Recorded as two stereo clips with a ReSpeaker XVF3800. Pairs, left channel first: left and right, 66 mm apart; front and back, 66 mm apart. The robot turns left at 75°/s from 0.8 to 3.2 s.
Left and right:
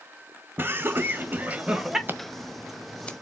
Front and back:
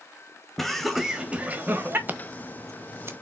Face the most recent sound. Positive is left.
turn(degrees=145)